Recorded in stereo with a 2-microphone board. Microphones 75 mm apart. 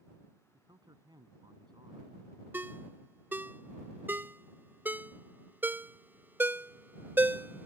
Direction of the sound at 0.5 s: 70° right (ahead or behind).